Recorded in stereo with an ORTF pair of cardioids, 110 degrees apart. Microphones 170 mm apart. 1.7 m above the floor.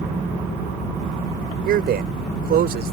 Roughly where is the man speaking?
Ahead right.